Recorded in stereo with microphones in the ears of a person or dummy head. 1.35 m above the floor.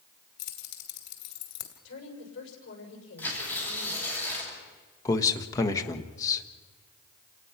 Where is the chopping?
I don't hear chopping.